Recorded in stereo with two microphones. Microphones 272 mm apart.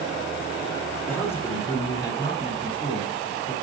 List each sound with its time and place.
1.1 s a man speaking: 10° left (ahead or behind), 3 m; by 3.5 s 25° left (ahead or behind), 4 m